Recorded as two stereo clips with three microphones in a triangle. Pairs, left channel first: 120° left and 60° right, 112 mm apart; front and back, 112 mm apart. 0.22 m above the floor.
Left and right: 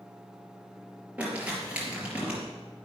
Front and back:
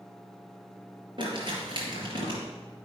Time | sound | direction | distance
1.2 | crumpling | 135° right | 4 m